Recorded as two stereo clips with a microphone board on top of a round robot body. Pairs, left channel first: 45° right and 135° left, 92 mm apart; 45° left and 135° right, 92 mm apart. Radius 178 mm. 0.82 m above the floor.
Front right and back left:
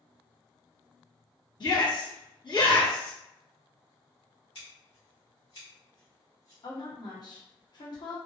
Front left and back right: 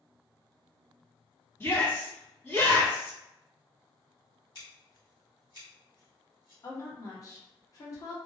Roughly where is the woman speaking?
Ahead.